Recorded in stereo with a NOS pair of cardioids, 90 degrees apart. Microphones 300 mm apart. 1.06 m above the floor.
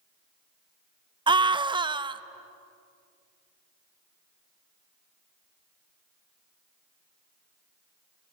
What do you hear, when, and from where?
1.3 s a scream: 15° right, 0.9 m